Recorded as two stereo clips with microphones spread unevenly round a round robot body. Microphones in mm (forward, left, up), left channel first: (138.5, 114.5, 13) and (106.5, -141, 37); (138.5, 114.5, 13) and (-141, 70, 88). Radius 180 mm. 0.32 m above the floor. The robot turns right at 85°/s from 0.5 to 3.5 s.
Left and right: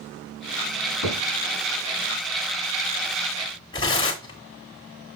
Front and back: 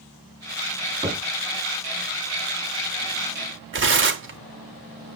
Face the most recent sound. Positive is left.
turn(degrees=140)